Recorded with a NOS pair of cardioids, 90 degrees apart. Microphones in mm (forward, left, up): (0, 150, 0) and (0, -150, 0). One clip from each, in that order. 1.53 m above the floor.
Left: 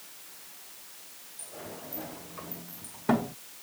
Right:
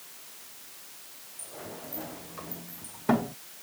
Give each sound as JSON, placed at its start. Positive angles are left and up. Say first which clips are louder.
{"t": 1.4, "sound": "a sliding door", "louder": "right 1 dB", "azimuth_deg": 0}